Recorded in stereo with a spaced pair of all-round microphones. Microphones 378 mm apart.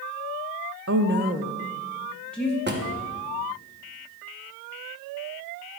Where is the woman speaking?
40° right (ahead or behind), 0.5 m; by 2.6 s 5° left (ahead or behind), 1.3 m.